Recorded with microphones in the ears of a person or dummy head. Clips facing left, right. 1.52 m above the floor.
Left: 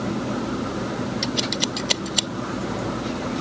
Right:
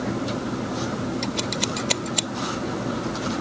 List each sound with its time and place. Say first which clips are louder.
1.2 s scissors: left 1 dB; 10° left (ahead or behind)